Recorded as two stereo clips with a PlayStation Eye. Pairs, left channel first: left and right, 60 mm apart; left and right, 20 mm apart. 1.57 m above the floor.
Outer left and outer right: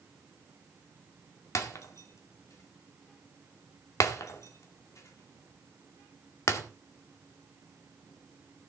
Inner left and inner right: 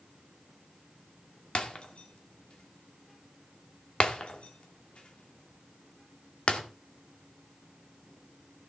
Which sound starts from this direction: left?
Breaking glass, at 1.6 s.